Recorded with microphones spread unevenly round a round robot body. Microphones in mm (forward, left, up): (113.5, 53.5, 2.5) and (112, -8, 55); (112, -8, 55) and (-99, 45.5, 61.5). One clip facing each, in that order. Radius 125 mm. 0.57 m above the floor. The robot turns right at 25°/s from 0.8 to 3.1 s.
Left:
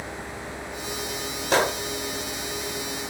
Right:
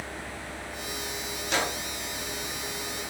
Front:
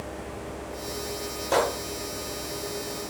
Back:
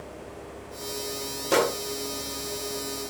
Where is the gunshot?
105° left, 0.8 m; by 1.8 s 115° left, 0.8 m.